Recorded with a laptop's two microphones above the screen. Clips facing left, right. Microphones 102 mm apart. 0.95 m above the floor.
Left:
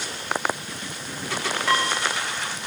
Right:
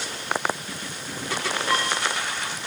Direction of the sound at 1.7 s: 85° left.